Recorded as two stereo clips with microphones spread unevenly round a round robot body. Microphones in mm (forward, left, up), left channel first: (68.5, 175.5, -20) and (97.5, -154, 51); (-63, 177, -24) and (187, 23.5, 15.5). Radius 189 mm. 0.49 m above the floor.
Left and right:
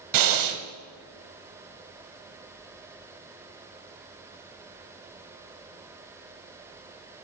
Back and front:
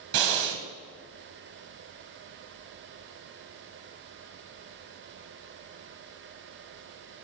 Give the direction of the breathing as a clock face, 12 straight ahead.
2 o'clock.